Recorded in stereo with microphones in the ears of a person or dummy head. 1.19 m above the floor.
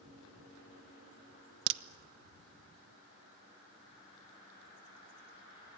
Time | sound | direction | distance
1.7 | a crack | 60° right (ahead or behind) | 1.0 m